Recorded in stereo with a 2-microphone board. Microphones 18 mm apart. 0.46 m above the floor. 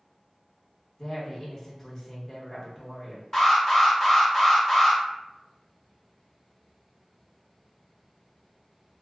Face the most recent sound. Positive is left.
turn(degrees=30)  # may be behind; listen again after turning